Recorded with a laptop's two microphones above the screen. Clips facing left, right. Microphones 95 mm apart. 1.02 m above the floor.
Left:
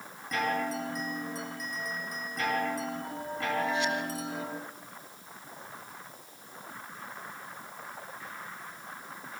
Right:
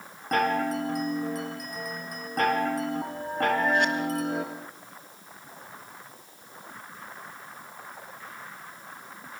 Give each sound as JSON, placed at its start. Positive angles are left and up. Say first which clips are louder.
{"t": 0.3, "sound": "a chime", "louder": "right 6 dB", "side_deg": -55, "distance_m": 3.5}